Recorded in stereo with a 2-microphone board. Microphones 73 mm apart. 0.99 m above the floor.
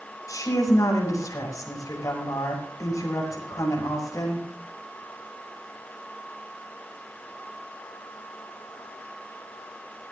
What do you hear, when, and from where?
0.3 s a woman speaking: 50° left (ahead or behind), 6 m